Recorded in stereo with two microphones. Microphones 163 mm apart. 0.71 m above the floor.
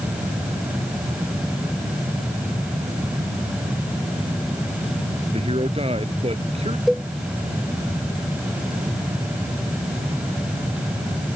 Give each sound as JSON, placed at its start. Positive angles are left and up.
{"t": 5.3, "sound": "a man speaking", "side_deg": -35}
{"t": 6.9, "sound": "a cowbell", "side_deg": 0}